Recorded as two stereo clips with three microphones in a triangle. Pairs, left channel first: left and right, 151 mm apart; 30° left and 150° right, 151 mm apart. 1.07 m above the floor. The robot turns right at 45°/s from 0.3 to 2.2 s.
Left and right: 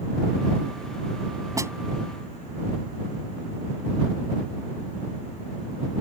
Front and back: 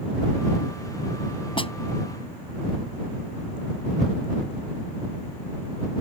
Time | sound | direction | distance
1.6 | a snare drum | 25° right | ?